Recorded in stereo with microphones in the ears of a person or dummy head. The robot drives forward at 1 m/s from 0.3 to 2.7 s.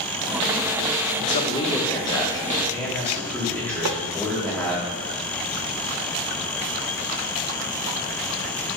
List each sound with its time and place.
1.2 s a man speaking: 40° left (ahead or behind), 0.6 m; by 4.8 s 10° left (ahead or behind), 2 m
3.9 s tapping: 75° right (ahead or behind), 0.7 m